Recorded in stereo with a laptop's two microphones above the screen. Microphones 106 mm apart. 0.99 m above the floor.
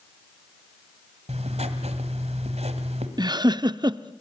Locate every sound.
1.3 s writing: 75° right (ahead or behind), 2 m
3.2 s a giggle: 40° right (ahead or behind), 0.6 m